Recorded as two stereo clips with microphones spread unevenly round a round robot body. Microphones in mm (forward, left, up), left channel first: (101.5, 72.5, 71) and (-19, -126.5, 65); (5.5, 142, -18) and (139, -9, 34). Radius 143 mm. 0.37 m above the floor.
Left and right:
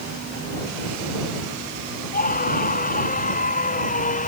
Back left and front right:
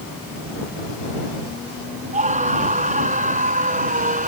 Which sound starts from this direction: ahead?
A scream, at 2.1 s.